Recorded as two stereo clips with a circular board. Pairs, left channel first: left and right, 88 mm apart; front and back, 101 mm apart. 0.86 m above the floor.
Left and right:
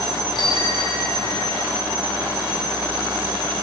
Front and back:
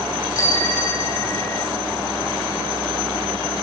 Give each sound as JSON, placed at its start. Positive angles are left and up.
{"t": 0.3, "sound": "a bicycle bell", "azimuth_deg": 60, "distance_m": 4.5}